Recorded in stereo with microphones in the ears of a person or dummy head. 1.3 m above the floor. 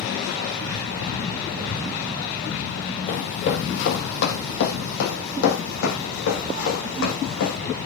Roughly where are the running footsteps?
Left.